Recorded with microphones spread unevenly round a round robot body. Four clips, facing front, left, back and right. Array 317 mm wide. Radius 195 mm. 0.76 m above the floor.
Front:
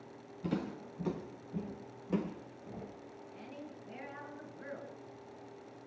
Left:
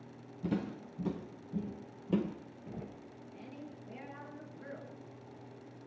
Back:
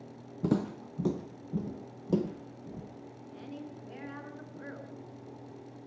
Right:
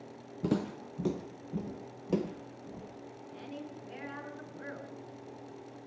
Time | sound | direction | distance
0.4 | footsteps | 155° right | 1.5 m
3.3 | a woman speaking | 135° right | 8 m